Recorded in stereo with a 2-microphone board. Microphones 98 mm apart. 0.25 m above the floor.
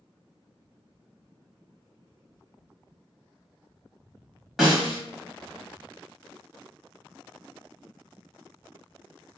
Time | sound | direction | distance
4.6 | a snare drum | 5° right (ahead or behind) | 1.2 m